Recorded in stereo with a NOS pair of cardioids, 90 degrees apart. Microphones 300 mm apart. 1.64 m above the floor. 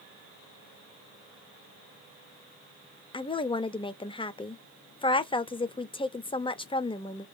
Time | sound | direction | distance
3.1 | a woman speaking | 15° left | 0.7 m